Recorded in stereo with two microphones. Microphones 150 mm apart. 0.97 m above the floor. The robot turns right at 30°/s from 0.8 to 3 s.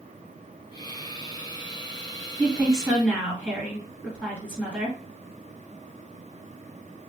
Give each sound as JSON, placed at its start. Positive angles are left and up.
{"t": 2.4, "sound": "a woman speaking", "side_deg": -25, "distance_m": 1.6}